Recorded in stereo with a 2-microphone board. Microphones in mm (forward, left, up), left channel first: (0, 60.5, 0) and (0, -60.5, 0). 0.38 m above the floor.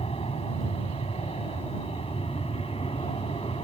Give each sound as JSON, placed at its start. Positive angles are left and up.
{"t": 0.0, "sound": "an aircraft", "side_deg": 50}